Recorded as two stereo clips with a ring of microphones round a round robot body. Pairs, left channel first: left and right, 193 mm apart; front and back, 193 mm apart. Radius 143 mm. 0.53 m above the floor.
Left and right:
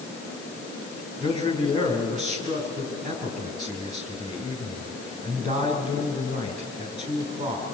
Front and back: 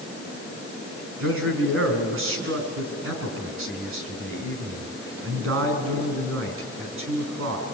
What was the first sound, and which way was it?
A man speaking, 155° right.